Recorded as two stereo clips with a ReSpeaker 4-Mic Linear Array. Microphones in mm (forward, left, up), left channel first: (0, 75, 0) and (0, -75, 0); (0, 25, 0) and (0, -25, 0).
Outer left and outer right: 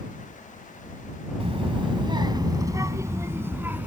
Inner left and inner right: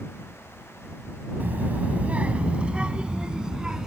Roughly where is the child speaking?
Right.